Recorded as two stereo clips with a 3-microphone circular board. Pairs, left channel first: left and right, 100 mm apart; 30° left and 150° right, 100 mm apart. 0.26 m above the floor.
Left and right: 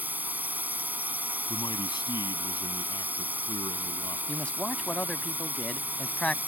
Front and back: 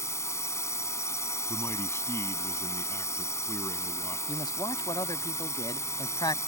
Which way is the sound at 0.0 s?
20° right.